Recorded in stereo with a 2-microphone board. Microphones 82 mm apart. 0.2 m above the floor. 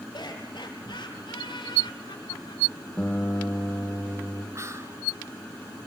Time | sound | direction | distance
0.1 | laughter | 60° left (ahead or behind) | 5.5 m
3.0 | a guitar | 15° left (ahead or behind) | 3.5 m
4.5 | whispering | 35° right (ahead or behind) | 1.8 m